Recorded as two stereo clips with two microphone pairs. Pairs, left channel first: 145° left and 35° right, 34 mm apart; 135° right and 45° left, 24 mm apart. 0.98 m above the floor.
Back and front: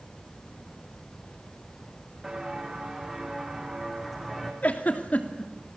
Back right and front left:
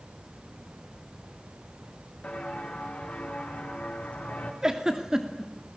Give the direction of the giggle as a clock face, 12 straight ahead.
8 o'clock.